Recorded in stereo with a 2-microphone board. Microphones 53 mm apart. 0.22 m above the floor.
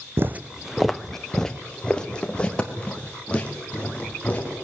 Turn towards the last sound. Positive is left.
turn(degrees=25)  # may be behind; listen again after turning